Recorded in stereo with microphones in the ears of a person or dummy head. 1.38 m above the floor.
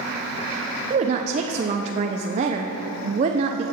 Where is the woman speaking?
35° right (ahead or behind), 0.5 m.